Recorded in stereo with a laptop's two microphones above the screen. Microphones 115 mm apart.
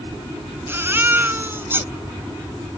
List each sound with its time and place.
0.7 s a baby crying: 20° right (ahead or behind)